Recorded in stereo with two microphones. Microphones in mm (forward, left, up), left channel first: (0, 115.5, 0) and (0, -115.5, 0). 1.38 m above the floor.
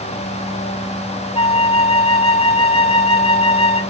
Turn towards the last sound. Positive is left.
turn(degrees=25)  # may be behind; listen again after turning